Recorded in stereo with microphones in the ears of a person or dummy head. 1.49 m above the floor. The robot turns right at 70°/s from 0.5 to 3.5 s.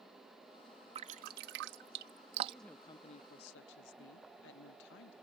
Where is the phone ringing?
No phone ringing in this recording.